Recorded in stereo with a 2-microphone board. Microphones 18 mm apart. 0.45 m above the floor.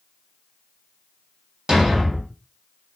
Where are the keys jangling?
No keys jangling in this recording.